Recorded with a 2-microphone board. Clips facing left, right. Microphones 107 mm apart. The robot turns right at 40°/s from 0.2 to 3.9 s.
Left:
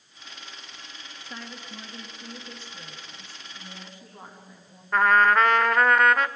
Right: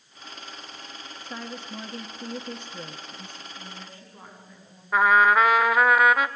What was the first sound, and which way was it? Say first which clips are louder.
A woman speaking: right 4 dB; 160° right.